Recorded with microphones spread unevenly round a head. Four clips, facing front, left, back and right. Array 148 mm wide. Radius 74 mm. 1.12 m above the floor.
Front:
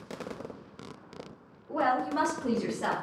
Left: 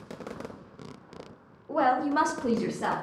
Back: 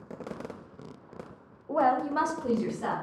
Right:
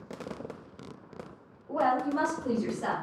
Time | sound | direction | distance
1.7 | a woman speaking | 165° left | 0.6 m